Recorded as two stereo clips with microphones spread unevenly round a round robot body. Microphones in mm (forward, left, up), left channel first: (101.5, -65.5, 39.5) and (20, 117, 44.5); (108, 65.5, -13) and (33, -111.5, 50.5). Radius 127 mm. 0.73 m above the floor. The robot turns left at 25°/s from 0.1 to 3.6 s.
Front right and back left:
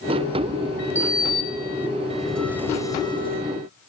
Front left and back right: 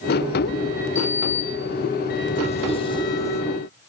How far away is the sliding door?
About 4 m.